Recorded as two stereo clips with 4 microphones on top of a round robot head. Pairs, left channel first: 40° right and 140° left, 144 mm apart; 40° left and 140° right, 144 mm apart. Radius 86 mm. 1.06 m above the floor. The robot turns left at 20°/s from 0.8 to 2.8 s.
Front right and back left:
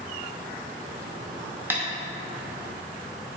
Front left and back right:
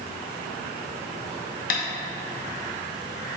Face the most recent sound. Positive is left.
turn(degrees=45)